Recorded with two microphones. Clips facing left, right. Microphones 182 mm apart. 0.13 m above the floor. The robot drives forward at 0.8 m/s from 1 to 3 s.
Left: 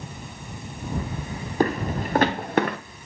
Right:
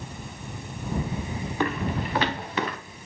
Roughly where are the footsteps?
Left.